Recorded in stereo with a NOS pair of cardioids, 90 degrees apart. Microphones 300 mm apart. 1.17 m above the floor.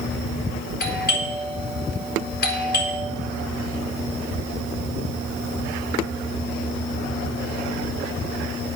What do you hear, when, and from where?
0.8 s a doorbell: 30° left, 4 m